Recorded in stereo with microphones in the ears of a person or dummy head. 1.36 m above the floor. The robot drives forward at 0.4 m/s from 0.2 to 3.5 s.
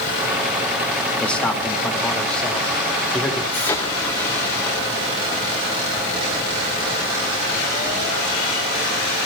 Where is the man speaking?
15° left (ahead or behind), 3 m; by 3.4 s 10° left (ahead or behind), 3.5 m.